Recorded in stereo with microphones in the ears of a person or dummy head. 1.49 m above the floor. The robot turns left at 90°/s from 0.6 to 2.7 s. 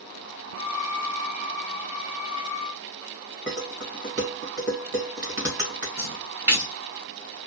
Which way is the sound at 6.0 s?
15° right (ahead or behind).